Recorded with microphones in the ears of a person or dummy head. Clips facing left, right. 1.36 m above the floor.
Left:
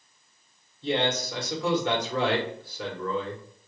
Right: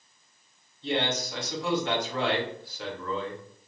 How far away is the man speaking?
About 1.6 m.